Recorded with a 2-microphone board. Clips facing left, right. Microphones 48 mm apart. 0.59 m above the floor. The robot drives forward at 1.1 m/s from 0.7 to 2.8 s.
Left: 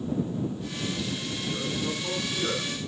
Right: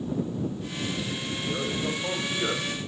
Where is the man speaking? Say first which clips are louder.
Right 2 dB; 70° right (ahead or behind), 2 m; by 2.7 s 50° right (ahead or behind), 2.5 m.